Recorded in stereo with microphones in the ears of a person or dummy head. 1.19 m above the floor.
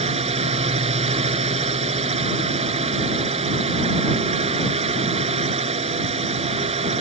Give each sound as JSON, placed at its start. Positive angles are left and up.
{"t": 0.0, "sound": "a drone", "side_deg": -30}